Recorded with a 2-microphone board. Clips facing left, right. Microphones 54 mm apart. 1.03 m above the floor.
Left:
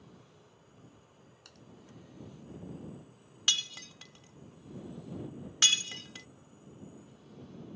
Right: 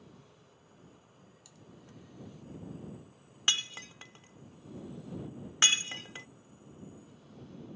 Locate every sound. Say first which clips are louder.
1.4 s typing on a keyboard: left 1 dB; 60° left (ahead or behind)
3.5 s breaking glass: right 1 dB; 30° right (ahead or behind)